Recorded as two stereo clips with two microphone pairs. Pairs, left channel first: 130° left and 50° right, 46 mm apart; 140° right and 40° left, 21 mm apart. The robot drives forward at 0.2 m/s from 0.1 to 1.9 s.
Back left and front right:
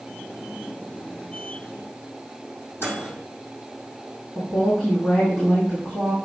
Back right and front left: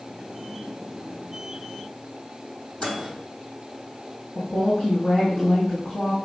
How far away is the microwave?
About 4 m.